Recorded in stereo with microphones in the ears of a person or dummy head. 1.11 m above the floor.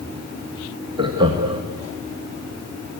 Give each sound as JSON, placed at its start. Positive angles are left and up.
{"t": 1.0, "sound": "laughter", "side_deg": -35, "distance_m": 1.9}